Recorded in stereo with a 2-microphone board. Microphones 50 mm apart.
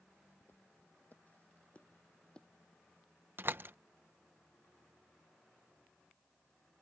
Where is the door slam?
45° right (ahead or behind).